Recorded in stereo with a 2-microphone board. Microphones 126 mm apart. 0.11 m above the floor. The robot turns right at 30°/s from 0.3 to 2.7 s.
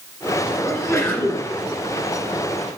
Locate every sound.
0.6 s a sneeze: 25° left (ahead or behind), 2.0 m; by 1.5 s 20° left (ahead or behind), 2.0 m